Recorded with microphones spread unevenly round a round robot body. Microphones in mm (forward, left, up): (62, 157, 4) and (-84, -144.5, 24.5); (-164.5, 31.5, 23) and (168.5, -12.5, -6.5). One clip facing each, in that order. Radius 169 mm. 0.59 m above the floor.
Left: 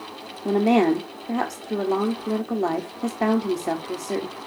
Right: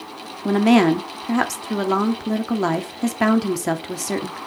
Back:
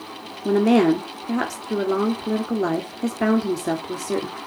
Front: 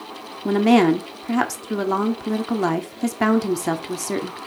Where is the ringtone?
I don't hear a ringtone.